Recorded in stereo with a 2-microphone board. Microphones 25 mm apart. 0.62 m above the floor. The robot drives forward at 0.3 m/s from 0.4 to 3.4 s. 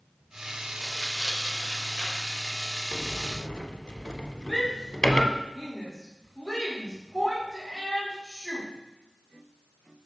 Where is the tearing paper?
35° left (ahead or behind), 0.7 m; by 3.0 s 15° left (ahead or behind), 1.3 m.